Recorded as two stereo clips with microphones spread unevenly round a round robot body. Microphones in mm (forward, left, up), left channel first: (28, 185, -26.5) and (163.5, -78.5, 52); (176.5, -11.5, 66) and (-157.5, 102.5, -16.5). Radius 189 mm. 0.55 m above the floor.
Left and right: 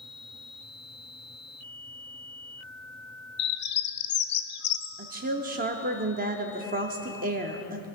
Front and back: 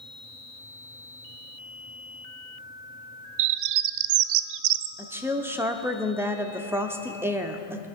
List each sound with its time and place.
3.4 s a bird: 155° left, 0.5 m
5.0 s a woman speaking: 135° right, 0.7 m